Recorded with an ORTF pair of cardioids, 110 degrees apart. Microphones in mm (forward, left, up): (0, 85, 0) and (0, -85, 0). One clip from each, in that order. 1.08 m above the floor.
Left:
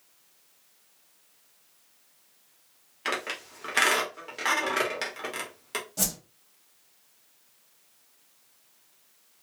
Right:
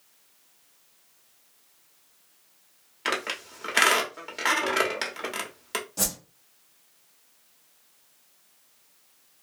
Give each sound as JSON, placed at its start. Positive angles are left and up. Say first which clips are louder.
{"t": 3.0, "sound": "a squeak", "louder": "right 2 dB", "azimuth_deg": -15, "distance_m": 1.0}
{"t": 6.0, "sound": "a whoosh", "louder": "right 1 dB", "azimuth_deg": 5, "distance_m": 1.5}